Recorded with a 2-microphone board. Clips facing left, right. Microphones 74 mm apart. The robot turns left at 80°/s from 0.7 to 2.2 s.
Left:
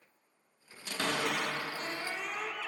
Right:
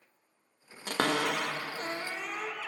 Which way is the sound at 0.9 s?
55° right (ahead or behind).